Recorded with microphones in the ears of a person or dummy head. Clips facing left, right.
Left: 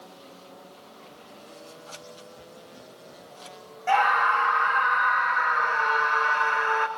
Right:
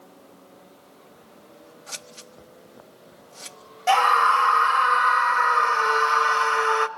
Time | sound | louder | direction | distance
1.9 | scissors | left 2 dB | 35° right (ahead or behind) | 1.4 m
3.9 | a scream | right 3 dB | 55° right (ahead or behind) | 1.5 m